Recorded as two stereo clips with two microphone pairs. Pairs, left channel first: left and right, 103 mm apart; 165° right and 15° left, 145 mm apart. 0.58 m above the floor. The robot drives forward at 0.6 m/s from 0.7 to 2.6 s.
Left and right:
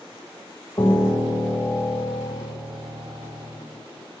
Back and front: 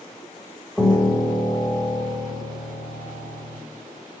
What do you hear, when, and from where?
0.8 s a piano: 110° left, 1.1 m; by 3.6 s 155° left, 1.7 m